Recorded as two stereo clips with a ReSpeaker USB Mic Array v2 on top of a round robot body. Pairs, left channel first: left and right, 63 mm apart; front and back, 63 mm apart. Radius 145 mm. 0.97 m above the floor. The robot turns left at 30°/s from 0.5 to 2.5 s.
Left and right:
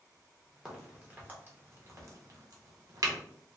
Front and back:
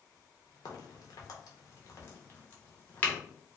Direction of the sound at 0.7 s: 5° right.